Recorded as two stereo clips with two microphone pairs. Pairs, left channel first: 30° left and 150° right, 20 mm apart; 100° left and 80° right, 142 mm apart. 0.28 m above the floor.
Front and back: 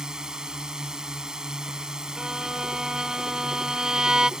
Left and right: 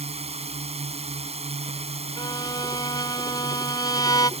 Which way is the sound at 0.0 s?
110° right.